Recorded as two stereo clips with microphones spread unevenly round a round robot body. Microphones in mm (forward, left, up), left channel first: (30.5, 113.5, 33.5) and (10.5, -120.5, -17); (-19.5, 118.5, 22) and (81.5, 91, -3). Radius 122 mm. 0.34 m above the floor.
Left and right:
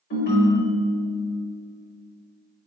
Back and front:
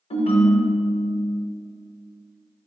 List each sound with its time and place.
0.1 s a ringtone: 135° left, 0.9 m